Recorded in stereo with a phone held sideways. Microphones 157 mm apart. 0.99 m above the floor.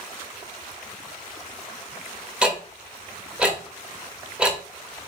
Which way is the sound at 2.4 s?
5° right (ahead or behind).